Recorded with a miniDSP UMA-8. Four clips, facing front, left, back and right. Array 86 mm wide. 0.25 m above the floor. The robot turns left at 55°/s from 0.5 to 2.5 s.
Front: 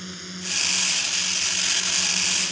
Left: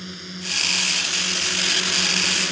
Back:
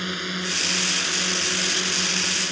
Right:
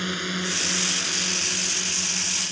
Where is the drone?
135° right; by 2.5 s 115° left.